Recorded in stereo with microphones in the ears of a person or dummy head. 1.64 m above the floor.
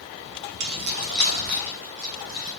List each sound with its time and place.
0.6 s keys jangling: 50° right (ahead or behind), 0.8 m; by 2.5 s 35° right (ahead or behind), 1.9 m